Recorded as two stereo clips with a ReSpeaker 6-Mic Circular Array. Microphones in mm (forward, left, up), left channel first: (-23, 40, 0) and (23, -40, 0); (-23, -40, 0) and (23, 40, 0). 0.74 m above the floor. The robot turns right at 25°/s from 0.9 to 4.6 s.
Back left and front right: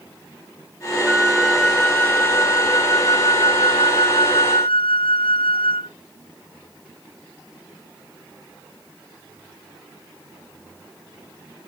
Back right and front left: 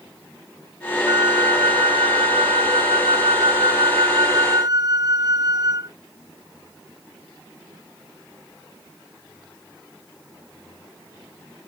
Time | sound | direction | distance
1.1 | a flute | 20° left | ?